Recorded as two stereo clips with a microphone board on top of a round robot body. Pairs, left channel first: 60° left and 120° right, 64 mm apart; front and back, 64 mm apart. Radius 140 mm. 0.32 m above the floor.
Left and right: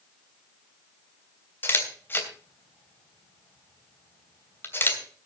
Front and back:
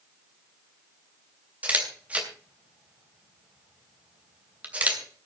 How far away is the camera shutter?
About 3 m.